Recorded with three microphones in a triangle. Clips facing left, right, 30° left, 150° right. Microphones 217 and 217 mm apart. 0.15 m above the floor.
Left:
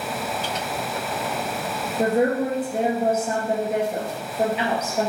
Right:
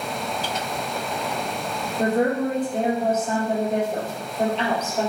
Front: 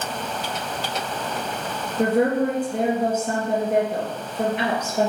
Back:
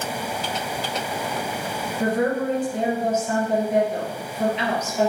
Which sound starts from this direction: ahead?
A woman speaking, at 2.0 s.